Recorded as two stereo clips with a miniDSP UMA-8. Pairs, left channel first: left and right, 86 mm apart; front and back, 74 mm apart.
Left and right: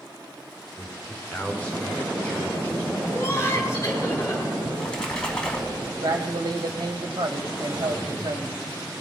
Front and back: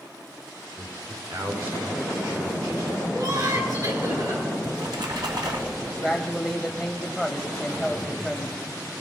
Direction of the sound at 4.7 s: 170° left.